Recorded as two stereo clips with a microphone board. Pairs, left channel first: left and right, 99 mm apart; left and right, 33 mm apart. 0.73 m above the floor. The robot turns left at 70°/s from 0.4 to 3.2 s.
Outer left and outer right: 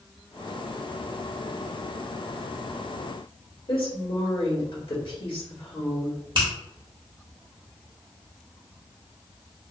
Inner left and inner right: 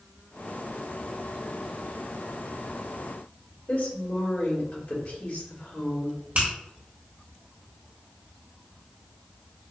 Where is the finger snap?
50° right (ahead or behind), 1.8 m.